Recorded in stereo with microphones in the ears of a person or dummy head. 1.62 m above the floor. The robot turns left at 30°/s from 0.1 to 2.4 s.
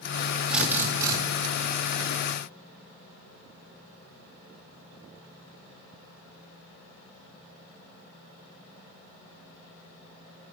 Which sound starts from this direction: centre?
A drill, at 0.5 s.